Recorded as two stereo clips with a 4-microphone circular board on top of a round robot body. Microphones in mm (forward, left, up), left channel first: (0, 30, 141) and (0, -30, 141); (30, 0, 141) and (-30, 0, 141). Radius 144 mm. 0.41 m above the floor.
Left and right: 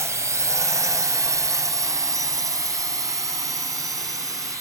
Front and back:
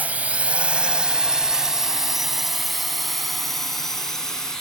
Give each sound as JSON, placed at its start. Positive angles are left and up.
{"t": 0.0, "sound": "a drone", "azimuth_deg": -115}